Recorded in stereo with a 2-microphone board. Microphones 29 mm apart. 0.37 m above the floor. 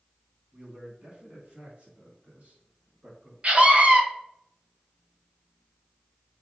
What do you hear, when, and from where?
0.5 s a man speaking: 50° right (ahead or behind), 3 m; by 3.3 s 60° right (ahead or behind), 4.5 m
3.4 s a scream: 50° right (ahead or behind), 2 m